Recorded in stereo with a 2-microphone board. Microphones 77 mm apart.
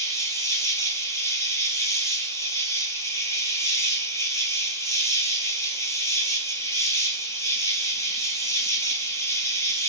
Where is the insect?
40° left (ahead or behind), 0.9 m.